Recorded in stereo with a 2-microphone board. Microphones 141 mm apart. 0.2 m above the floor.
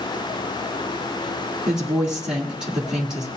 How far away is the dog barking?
No dog barking in this recording.